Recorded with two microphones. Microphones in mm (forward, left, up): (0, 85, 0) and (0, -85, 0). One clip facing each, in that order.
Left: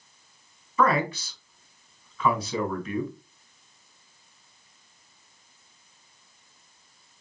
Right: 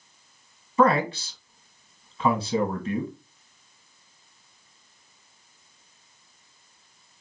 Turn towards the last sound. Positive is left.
turn(degrees=-35)  # may be behind; listen again after turning